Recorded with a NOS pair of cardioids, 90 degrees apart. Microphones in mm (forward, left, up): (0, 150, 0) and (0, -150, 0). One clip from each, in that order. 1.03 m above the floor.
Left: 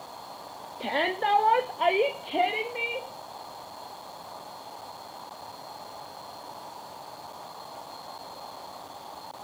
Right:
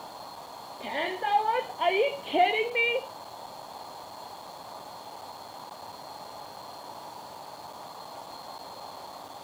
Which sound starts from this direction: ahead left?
A shout, at 0.8 s.